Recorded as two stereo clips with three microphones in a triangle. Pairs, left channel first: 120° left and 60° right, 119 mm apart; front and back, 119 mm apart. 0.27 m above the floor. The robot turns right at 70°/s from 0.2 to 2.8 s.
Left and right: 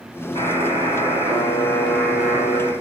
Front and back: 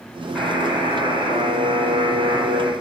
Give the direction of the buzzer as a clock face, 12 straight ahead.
9 o'clock.